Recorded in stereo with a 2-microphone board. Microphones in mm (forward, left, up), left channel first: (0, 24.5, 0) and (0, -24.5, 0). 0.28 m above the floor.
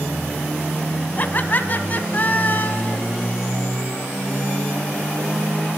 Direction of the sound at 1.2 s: 40° left (ahead or behind).